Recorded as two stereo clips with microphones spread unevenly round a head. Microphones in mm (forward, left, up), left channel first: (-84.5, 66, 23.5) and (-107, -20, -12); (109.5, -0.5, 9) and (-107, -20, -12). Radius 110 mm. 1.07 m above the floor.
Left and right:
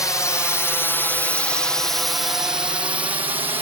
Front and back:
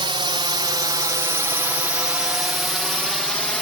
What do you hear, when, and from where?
0.0 s a drone: 135° left; by 3.6 s 80° right